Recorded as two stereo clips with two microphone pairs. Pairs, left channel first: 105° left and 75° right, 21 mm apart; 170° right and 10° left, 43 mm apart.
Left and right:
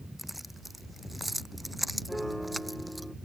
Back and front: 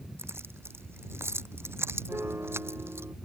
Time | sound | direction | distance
0.2 | keys jangling | 10° left | ?
2.1 | a piano | 25° left | ?